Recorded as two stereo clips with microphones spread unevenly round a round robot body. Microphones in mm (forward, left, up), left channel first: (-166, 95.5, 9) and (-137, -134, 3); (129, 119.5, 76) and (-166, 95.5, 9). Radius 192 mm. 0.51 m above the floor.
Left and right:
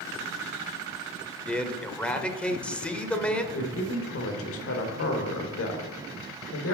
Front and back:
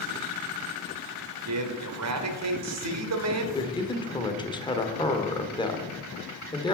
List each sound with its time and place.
1.5 s a man speaking: 175° right, 1.6 m
3.5 s a man speaking: 85° left, 1.5 m